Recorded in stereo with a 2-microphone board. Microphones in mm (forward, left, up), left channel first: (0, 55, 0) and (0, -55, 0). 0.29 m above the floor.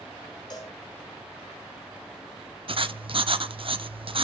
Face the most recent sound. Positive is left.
turn(degrees=-55)  # may be behind; listen again after turning